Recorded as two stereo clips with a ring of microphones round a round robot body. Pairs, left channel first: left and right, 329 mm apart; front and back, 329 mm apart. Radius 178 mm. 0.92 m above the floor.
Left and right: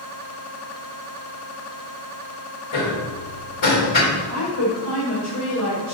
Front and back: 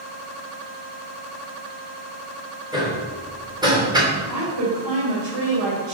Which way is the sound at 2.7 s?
105° left.